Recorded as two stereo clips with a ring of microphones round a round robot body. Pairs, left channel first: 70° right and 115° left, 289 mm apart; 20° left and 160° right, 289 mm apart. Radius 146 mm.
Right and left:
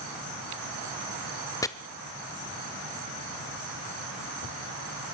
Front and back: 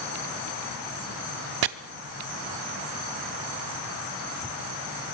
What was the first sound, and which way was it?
Chopping, 145° right.